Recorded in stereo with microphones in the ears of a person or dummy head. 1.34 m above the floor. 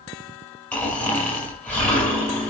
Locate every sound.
0.7 s snoring: 10° left (ahead or behind), 6.5 m